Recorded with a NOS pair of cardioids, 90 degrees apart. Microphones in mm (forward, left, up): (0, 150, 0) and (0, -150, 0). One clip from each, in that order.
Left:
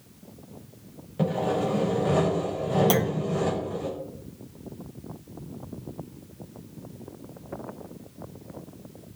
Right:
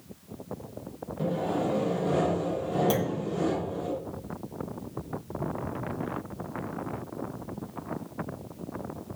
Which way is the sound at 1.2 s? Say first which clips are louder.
Left 3 dB; 65° left.